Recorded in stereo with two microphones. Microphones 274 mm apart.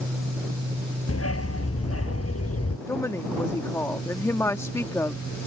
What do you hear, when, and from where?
1.1 s a dog barking: 60° left (ahead or behind)
2.9 s a woman speaking: 10° left (ahead or behind)